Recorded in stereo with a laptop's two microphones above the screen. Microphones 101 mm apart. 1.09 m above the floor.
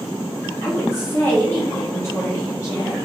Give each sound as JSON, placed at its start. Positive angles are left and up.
{"t": 0.6, "sound": "a woman speaking", "side_deg": 35, "distance_m": 0.9}